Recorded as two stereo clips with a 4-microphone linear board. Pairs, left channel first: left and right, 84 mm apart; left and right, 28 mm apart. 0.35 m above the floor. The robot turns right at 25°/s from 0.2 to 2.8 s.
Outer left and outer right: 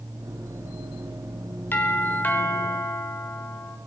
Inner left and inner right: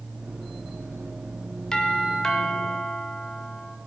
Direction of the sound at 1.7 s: 20° left (ahead or behind).